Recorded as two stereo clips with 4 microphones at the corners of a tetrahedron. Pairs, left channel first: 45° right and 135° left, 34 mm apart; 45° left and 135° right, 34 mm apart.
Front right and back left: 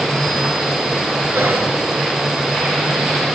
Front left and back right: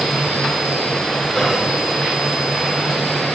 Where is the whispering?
125° left, 3 m.